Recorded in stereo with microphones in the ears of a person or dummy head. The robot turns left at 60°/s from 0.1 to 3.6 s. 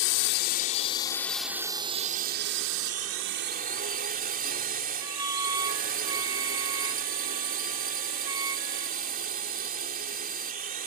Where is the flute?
15° right (ahead or behind).